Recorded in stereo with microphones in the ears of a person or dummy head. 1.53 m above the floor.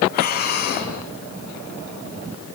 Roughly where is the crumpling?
No crumpling in this recording.